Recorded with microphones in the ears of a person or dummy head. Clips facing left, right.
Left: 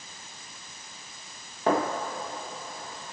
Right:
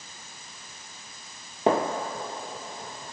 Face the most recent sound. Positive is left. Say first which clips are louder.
# right 2 dB
turn(degrees=-25)  # may be behind; listen again after turning